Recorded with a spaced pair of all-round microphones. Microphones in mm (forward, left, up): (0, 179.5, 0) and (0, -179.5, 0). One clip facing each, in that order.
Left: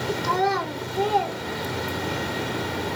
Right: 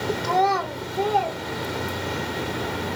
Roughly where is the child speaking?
Centre.